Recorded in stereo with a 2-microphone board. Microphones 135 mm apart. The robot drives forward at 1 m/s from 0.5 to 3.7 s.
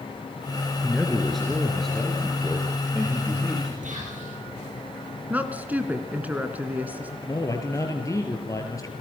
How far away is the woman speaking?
About 1.8 m.